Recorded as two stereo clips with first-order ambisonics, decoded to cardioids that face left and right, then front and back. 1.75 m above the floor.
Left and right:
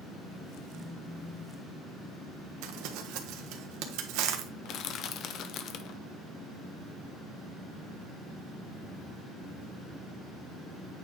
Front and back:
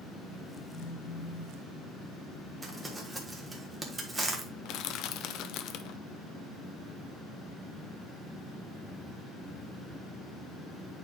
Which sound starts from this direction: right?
Crumpling, at 2.6 s.